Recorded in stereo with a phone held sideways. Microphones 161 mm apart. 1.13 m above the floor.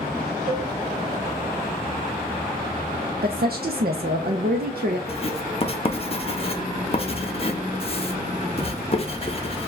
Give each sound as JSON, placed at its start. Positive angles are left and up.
{"t": 0.5, "sound": "a cowbell", "side_deg": -30, "distance_m": 2.0}
{"t": 3.2, "sound": "a woman speaking", "side_deg": -65, "distance_m": 0.5}
{"t": 5.1, "sound": "writing", "side_deg": 35, "distance_m": 0.7}